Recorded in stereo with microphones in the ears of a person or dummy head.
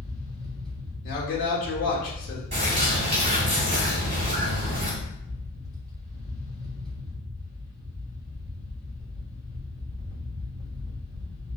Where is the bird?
35° right (ahead or behind), 0.9 m.